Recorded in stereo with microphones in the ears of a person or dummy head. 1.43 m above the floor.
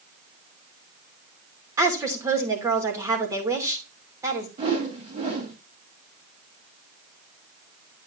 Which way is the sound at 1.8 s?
15° right (ahead or behind).